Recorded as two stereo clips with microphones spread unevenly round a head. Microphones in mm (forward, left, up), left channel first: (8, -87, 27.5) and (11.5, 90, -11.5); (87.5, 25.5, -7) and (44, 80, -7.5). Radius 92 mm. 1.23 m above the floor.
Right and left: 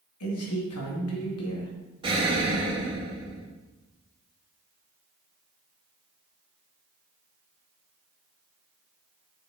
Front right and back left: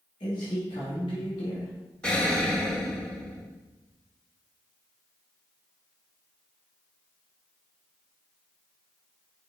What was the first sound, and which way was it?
A man speaking, 100° right.